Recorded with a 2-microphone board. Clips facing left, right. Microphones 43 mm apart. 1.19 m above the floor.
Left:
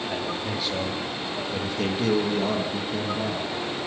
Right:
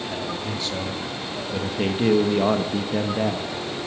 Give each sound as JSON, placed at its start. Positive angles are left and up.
{"t": 0.1, "sound": "a man speaking", "side_deg": 15, "distance_m": 2.5}